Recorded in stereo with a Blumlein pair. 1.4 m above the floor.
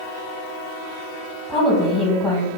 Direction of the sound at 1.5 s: 15° left.